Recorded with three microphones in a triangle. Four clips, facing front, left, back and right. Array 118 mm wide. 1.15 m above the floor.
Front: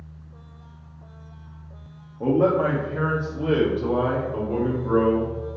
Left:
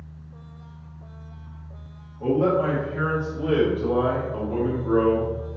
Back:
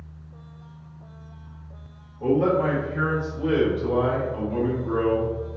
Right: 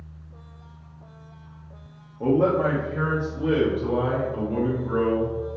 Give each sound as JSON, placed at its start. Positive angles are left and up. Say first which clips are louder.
{"t": 2.2, "sound": "a man speaking", "louder": "right 1 dB, front 1 dB", "azimuth_deg": -35, "distance_m": 1.8}